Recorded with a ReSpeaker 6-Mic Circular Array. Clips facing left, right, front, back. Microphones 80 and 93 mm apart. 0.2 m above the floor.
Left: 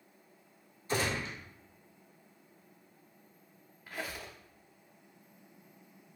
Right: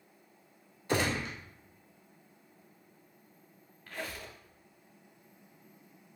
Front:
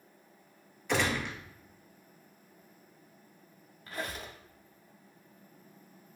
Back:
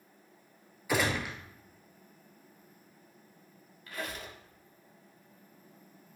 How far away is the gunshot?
About 0.7 m.